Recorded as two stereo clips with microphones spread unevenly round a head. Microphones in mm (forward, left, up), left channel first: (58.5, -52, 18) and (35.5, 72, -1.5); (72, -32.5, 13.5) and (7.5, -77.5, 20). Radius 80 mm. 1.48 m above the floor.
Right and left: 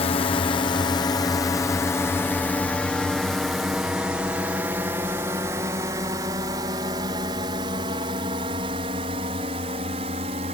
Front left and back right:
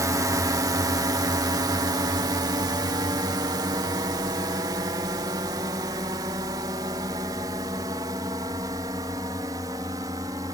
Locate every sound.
0.0 s a drone: 125° right; by 10.6 s 155° left